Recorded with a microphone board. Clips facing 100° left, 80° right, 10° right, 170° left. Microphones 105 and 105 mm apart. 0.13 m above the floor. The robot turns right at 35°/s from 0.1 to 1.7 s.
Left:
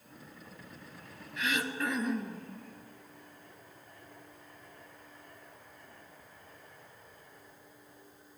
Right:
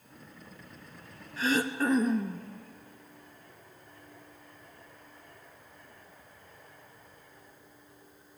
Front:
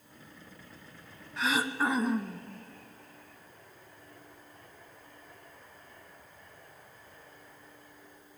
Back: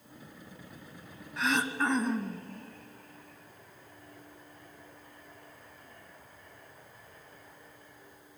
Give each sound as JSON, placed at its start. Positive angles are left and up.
{"t": 1.4, "sound": "throat clearing", "azimuth_deg": -100, "distance_m": 1.6}